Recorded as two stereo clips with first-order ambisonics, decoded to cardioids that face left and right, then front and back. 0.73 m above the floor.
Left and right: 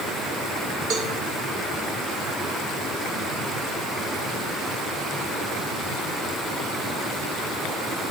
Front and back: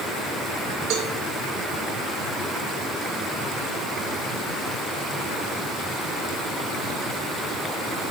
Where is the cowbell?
140° right, 1.5 m.